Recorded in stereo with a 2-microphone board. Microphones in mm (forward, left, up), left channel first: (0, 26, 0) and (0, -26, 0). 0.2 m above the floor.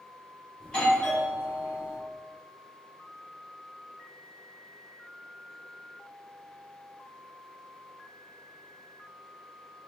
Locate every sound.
0.6 s a doorbell: 15° left (ahead or behind), 1.8 m